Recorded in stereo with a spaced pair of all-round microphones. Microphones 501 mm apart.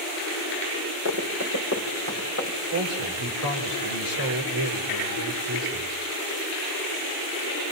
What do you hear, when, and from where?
1.1 s running footsteps: 25° left (ahead or behind), 5.5 m; by 2.6 s 30° left (ahead or behind), 7 m
2.7 s a man speaking: 35° right (ahead or behind), 6 m